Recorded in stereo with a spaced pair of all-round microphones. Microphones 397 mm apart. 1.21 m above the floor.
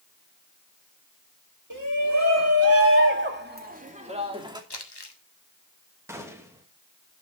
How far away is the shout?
About 2.5 m.